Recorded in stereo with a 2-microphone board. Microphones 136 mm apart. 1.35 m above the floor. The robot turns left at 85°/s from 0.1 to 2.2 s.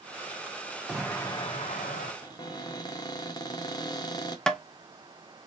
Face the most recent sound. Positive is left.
turn(degrees=5)  # may be behind; listen again after turning